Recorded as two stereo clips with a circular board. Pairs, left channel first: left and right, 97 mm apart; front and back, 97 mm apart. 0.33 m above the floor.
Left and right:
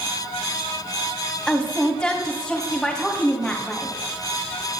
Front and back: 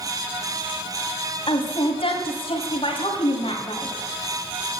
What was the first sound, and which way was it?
A woman speaking, 5° left.